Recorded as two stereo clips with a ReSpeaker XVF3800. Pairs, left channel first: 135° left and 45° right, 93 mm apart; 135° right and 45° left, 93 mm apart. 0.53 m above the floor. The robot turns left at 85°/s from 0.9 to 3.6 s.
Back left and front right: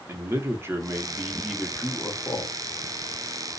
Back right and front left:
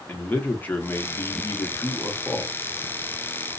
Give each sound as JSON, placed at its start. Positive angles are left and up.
{"t": 0.1, "sound": "a man speaking", "azimuth_deg": -80, "distance_m": 0.7}